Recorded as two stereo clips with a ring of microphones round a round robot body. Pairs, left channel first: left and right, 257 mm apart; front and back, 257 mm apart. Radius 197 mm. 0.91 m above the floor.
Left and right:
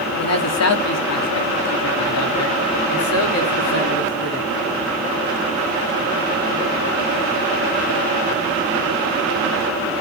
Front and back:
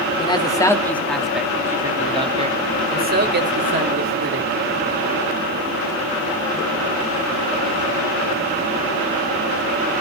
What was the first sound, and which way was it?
A man speaking, 70° left.